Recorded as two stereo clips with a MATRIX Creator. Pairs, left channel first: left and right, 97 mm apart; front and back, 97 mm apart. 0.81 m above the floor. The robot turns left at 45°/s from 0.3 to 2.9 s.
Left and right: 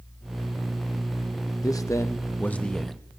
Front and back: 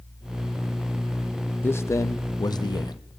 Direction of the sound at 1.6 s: 60° left.